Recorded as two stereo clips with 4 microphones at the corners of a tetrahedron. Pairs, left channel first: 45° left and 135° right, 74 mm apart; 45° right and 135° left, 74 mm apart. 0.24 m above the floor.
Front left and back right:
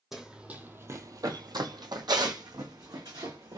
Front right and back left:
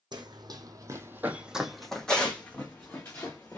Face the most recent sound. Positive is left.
turn(degrees=-105)